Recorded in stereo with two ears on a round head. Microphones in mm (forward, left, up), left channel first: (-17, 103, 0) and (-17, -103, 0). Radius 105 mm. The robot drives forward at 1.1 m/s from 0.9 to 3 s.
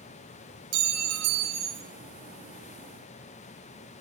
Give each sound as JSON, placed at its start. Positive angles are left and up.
{"t": 0.7, "sound": "a clink", "side_deg": -65, "distance_m": 2.5}